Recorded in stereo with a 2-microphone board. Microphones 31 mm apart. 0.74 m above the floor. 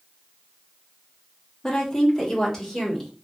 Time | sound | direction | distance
1.6 | a woman speaking | 20° left (ahead or behind) | 0.8 m